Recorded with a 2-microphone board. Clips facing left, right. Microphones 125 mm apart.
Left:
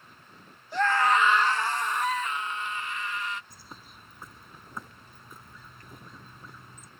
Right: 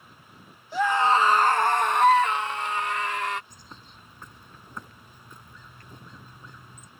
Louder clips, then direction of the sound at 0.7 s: Right 2 dB; 5° right (ahead or behind).